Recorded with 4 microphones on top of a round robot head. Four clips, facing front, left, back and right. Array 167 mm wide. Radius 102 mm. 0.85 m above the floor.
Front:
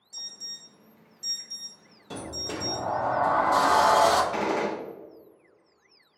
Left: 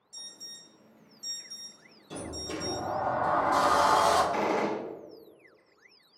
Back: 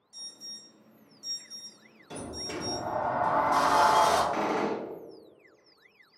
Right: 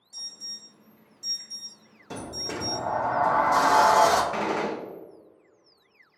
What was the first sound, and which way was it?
An alarm, 5° right.